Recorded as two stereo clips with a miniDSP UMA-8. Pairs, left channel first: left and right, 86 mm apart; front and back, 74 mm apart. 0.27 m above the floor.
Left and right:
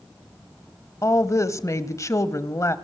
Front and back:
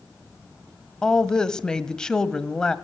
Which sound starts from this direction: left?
A woman speaking, at 1.0 s.